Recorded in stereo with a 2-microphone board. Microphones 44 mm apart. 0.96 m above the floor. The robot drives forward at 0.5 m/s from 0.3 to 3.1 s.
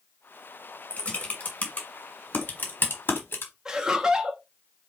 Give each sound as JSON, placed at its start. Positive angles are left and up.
{"t": 0.9, "sound": "typing on a keyboard", "side_deg": 30, "distance_m": 1.9}
{"t": 3.6, "sound": "laughter", "side_deg": -15, "distance_m": 0.8}